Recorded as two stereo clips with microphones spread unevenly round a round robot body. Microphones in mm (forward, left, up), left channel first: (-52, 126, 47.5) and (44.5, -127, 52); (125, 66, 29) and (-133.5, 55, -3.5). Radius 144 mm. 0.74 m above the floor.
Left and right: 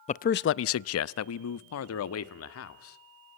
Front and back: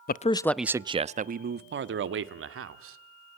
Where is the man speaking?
55° left, 0.5 m; by 3.0 s 150° left, 1.7 m.